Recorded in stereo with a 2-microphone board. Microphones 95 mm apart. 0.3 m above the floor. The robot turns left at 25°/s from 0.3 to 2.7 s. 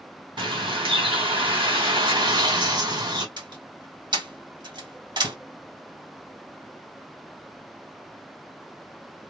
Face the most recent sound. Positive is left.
turn(degrees=-55)  # may be behind; listen again after turning